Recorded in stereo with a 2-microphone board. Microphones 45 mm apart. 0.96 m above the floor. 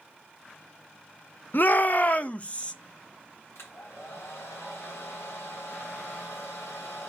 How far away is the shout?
About 0.7 m.